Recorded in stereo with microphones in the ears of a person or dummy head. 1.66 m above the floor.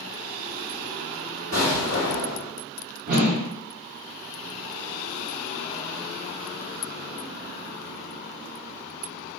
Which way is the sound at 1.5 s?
50° right (ahead or behind).